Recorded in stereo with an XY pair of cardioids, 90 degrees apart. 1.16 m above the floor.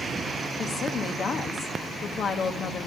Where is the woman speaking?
55° left, 1.3 m.